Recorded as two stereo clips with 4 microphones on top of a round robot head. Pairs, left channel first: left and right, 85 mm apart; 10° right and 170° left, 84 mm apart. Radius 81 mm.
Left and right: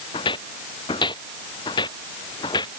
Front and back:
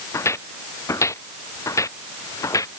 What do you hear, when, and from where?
0.1 s footsteps: 45° left; by 2.7 s 40° left